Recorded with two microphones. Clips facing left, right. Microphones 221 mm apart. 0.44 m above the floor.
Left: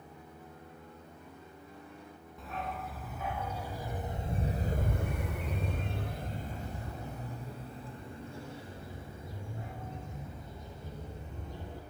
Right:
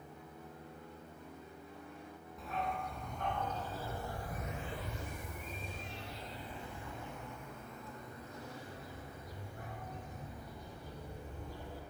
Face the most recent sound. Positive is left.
turn(degrees=20)  # may be behind; listen again after turning